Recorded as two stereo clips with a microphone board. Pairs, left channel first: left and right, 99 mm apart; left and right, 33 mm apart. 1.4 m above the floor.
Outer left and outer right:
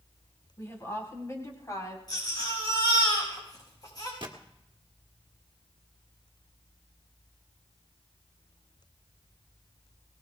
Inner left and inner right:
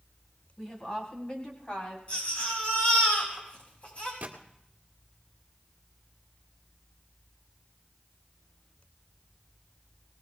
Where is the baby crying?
40° left (ahead or behind), 6.5 m.